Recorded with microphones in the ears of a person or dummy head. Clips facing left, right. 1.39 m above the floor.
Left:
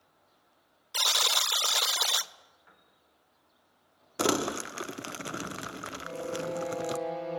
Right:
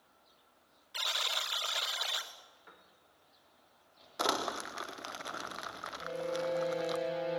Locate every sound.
0.9 s a buzzer: 55° left (ahead or behind), 0.9 m
2.7 s a piano: 50° right (ahead or behind), 3.5 m
4.2 s crumpling: 40° left (ahead or behind), 0.5 m
6.0 s a violin: 20° right (ahead or behind), 8 m